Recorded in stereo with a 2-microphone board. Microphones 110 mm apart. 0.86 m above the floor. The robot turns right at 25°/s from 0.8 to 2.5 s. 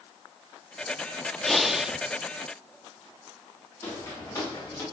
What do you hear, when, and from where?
1.4 s breathing: 5° left (ahead or behind), 0.5 m; by 2.0 s 10° right (ahead or behind), 0.5 m
3.8 s footsteps: 25° left (ahead or behind), 9.5 m; by 4.8 s 30° left (ahead or behind), 10 m